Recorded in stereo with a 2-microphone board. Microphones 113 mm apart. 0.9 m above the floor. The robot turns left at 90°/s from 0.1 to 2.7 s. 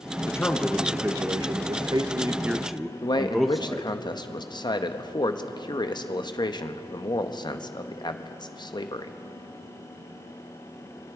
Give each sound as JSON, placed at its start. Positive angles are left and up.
{"t": 0.3, "sound": "a man speaking", "azimuth_deg": 40, "distance_m": 0.5}
{"t": 3.0, "sound": "a man speaking", "side_deg": 40, "distance_m": 0.7}